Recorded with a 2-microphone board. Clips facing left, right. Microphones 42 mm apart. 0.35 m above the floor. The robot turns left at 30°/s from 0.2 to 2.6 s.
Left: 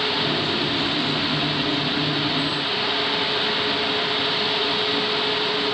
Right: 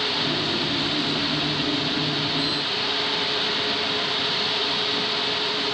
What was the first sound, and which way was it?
Only background noise.